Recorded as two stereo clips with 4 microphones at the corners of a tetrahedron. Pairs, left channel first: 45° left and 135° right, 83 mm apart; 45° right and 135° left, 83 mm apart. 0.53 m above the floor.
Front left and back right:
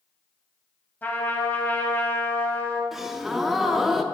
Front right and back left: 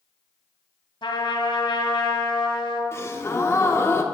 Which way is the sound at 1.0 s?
25° right.